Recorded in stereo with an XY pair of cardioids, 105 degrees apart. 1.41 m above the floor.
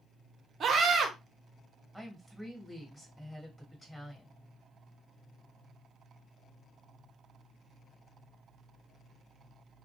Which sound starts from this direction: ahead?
A woman speaking, at 1.9 s.